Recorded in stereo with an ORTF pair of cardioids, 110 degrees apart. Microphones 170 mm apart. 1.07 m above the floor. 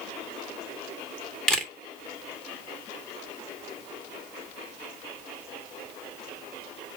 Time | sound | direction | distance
1.5 | a camera shutter | 5° left | 1.7 m